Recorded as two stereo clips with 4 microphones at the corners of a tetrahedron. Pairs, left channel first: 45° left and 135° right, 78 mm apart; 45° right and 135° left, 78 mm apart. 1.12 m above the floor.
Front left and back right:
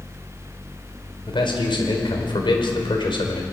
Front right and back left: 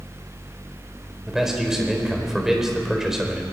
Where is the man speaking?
50° left, 4 m.